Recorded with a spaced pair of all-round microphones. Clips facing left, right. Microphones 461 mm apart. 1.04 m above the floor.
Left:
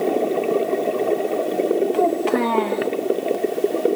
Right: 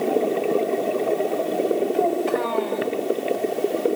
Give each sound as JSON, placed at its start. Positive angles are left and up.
{"t": 1.9, "sound": "a child speaking", "side_deg": 85, "distance_m": 1.8}